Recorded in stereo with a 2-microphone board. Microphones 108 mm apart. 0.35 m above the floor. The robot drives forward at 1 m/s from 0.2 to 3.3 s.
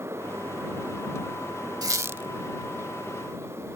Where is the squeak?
35° right (ahead or behind); by 2.3 s 20° right (ahead or behind).